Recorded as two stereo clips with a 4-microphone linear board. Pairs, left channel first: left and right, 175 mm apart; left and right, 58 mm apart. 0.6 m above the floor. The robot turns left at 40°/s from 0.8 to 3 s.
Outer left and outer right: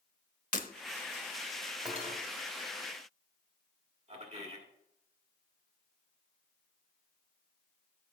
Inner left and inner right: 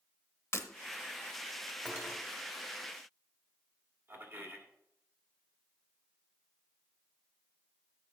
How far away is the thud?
No thud in this recording.